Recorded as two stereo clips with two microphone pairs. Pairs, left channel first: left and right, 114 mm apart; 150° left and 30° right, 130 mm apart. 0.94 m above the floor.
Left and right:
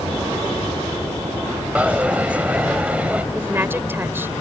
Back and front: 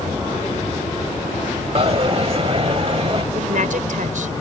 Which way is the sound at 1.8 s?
20° right.